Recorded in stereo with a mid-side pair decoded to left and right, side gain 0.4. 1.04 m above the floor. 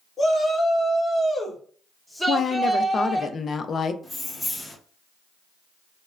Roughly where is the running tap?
No running tap in this recording.